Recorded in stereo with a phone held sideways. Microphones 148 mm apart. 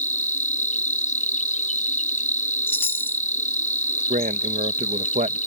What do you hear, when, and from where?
0.0 s an insect: 55° left (ahead or behind)
2.7 s a chime: 15° left (ahead or behind)
4.1 s a man speaking: 60° right (ahead or behind)